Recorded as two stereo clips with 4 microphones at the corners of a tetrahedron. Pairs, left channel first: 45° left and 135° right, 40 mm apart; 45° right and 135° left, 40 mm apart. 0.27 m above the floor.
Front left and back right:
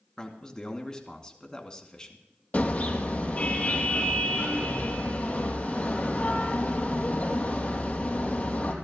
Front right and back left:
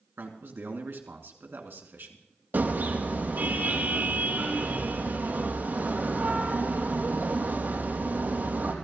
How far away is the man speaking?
About 2.5 m.